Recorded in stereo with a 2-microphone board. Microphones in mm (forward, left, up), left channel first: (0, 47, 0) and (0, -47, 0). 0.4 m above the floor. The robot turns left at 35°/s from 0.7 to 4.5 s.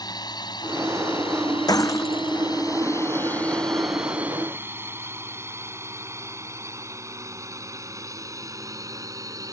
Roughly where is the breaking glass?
Left.